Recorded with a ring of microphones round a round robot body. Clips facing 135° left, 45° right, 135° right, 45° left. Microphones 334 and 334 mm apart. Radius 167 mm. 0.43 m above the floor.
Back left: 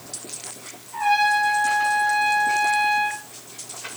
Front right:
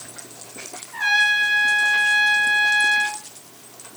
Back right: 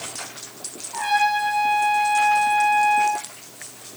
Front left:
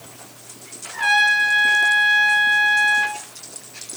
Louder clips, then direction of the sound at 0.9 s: Back left 10 dB, back right 3 dB; straight ahead.